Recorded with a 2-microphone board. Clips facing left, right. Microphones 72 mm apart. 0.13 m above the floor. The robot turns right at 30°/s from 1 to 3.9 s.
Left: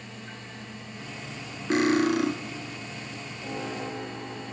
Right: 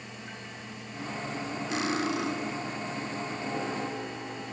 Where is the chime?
No chime in this recording.